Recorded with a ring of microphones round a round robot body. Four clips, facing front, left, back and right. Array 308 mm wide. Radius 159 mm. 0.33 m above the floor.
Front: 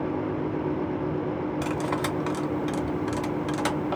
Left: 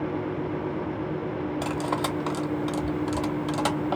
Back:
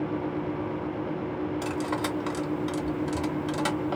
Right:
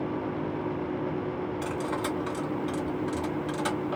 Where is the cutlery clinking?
65° left, 0.8 m.